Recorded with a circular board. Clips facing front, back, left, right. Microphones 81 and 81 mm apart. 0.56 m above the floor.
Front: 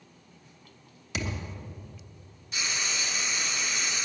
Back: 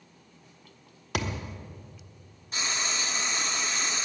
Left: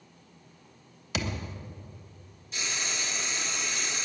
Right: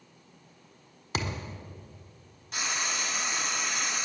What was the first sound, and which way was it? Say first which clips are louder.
A thud: back 3 dB, even; 150° right.